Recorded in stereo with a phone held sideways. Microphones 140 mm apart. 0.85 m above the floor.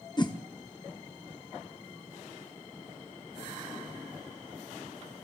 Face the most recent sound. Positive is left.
turn(degrees=30)  # may be behind; listen again after turning